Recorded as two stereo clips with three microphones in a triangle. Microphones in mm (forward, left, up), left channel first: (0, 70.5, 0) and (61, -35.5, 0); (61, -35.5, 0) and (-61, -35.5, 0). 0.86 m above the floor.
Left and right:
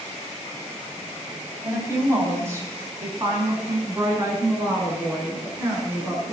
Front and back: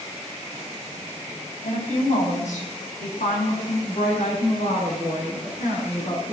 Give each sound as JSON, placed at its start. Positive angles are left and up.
{"t": 1.6, "sound": "a woman speaking", "azimuth_deg": 5, "distance_m": 4.5}